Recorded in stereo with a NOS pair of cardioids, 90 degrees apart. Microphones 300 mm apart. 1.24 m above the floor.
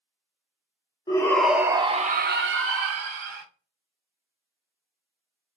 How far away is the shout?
About 1.0 m.